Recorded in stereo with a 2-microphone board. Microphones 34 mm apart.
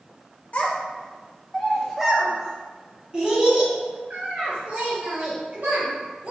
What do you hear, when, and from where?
0.5 s a child speaking: 45° left (ahead or behind), 0.8 m; by 6.3 s 50° right (ahead or behind), 2.5 m